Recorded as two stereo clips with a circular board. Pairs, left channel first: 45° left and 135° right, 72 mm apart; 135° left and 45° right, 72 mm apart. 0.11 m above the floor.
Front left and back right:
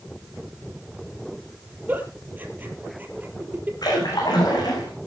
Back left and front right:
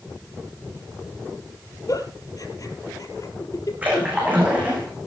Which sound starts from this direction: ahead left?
A splash, at 3.8 s.